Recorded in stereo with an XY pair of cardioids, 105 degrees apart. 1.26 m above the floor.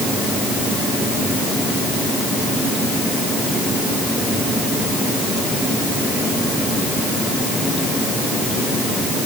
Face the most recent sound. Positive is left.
No sound to turn to.